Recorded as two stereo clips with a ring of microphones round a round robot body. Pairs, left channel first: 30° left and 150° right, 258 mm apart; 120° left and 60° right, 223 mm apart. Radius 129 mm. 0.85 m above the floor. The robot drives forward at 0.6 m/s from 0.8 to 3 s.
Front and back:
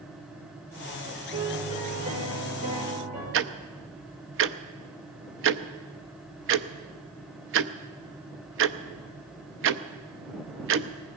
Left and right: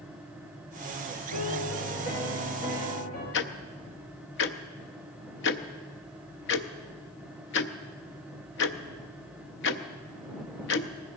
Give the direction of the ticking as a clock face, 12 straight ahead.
6 o'clock.